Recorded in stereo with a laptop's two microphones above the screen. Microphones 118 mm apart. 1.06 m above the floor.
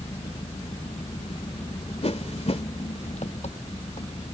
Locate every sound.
0.0 s an engine running: 70° left (ahead or behind)
2.0 s a whoosh: 65° left (ahead or behind)